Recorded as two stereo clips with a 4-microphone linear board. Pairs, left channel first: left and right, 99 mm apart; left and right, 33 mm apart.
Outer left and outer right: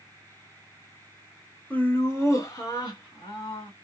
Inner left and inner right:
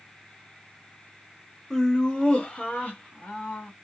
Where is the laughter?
15° left (ahead or behind), 0.9 m; by 3.7 s 55° left (ahead or behind), 1.6 m.